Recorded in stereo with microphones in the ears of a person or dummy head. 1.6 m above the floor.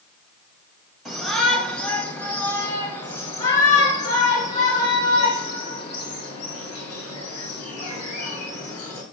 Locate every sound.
1.1 s a shout: centre (ahead or behind), 3 m; by 9.0 s 65° left (ahead or behind), 5.5 m